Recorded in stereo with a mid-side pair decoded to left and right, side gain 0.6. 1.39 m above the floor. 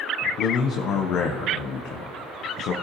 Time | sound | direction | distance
0.4 | a man speaking | 65° left | 0.8 m